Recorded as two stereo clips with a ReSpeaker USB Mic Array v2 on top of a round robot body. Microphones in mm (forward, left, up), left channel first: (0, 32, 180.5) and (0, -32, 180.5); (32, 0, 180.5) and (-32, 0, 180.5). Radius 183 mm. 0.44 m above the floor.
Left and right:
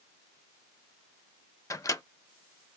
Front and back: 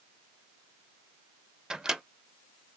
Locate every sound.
1.7 s a microwave: 100° left, 0.7 m